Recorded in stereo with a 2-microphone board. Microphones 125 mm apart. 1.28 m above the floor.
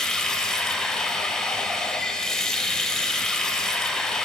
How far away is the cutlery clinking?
I don't hear cutlery clinking.